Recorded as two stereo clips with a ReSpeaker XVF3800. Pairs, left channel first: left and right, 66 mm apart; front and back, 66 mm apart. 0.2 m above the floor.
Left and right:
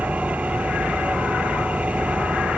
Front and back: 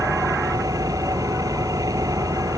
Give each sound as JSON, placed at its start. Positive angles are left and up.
{"t": 0.0, "sound": "an engine running", "azimuth_deg": -160}